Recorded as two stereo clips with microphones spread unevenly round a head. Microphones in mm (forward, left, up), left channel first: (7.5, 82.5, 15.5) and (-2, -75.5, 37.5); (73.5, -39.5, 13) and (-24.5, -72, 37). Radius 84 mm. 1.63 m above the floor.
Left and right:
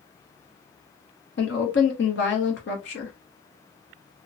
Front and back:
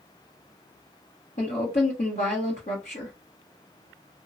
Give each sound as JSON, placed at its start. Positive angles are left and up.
{"t": 1.4, "sound": "a woman speaking", "azimuth_deg": 70, "distance_m": 0.9}